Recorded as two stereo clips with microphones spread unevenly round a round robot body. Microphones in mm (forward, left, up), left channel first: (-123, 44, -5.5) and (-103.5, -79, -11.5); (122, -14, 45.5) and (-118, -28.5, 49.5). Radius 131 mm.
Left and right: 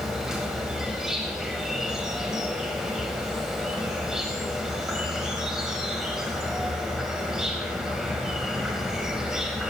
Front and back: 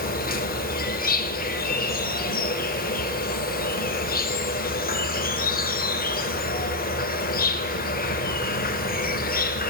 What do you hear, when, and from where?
0.0 s an insect: straight ahead, 0.9 m